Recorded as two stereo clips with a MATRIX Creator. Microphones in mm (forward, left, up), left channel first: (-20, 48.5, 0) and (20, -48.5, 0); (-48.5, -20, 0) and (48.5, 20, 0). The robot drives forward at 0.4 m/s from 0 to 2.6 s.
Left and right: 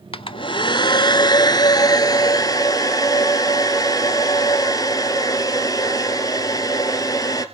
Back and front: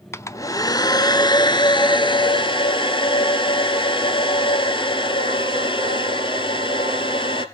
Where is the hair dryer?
140° left, 0.5 m; by 7.5 s 165° left, 1.4 m.